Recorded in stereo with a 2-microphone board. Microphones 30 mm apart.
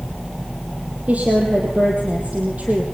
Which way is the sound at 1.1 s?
50° right (ahead or behind).